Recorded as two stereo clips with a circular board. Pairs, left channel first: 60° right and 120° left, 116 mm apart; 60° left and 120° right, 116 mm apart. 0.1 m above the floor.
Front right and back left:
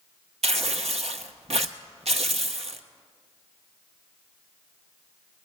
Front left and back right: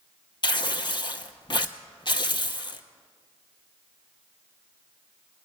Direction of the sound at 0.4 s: 105° left.